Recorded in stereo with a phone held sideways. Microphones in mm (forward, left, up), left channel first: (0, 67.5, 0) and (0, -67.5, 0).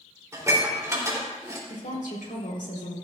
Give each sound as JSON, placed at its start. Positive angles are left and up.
{"t": 0.3, "sound": "dishes clattering", "side_deg": -20, "distance_m": 3.0}
{"t": 1.7, "sound": "a woman speaking", "side_deg": 80, "distance_m": 3.5}